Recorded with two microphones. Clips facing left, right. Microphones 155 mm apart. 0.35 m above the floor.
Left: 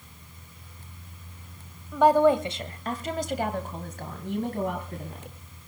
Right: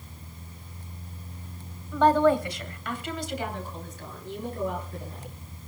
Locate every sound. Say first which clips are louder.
1.9 s a woman speaking: left 1 dB; 10° left (ahead or behind), 1.8 m; by 5.3 s 70° left (ahead or behind), 3.5 m